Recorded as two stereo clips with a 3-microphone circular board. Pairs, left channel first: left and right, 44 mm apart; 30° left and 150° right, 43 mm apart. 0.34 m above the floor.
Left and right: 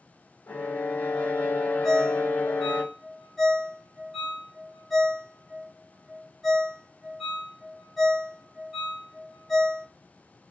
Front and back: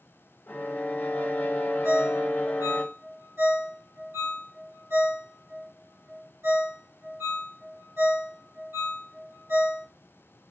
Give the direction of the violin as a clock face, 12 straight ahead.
10 o'clock.